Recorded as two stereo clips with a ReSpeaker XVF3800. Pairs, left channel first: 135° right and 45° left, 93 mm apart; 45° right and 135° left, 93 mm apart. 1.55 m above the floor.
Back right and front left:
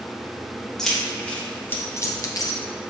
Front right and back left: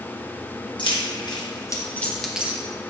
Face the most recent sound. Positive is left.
turn(degrees=-160)